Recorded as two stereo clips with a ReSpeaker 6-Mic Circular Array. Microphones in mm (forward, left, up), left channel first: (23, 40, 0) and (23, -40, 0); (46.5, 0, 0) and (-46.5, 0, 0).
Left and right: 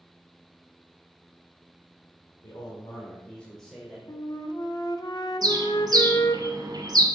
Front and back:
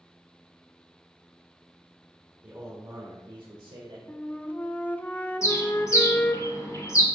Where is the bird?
55° right, 1.5 m.